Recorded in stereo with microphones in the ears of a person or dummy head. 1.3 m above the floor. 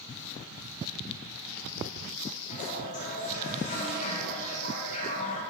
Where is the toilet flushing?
40° left (ahead or behind), 3 m.